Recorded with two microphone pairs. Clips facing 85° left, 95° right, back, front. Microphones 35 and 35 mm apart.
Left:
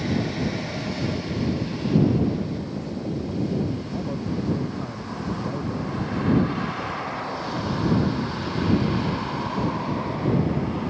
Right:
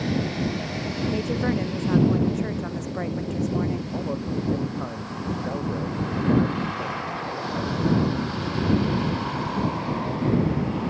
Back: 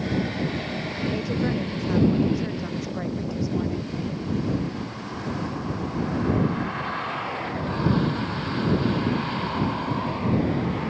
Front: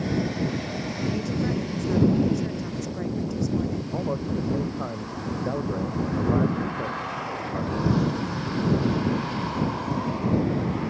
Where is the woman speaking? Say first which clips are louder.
Right 2 dB, back 2 dB; 105° right.